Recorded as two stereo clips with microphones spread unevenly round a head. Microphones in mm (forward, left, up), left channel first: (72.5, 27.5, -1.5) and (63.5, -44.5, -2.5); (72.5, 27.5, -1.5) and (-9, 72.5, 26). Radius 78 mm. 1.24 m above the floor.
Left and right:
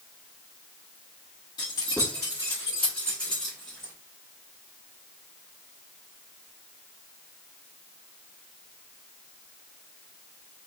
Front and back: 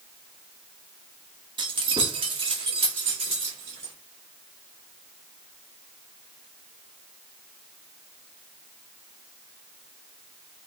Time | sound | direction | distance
1.6 | keys jangling | 130° left | 0.9 m